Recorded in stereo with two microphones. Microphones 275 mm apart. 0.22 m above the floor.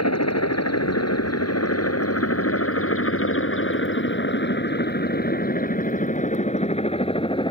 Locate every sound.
0.0 s a helicopter: 70° left (ahead or behind); by 7.5 s 15° left (ahead or behind)